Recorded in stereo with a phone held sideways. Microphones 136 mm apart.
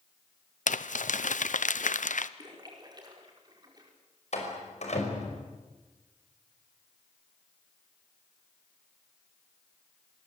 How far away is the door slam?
About 5.5 m.